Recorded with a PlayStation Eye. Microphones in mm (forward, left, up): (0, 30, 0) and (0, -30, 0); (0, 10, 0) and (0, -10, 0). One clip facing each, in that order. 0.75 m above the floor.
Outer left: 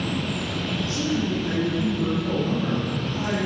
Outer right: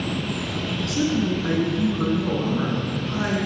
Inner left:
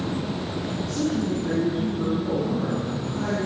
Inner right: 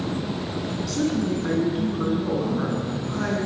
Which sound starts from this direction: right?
A man speaking, at 0.9 s.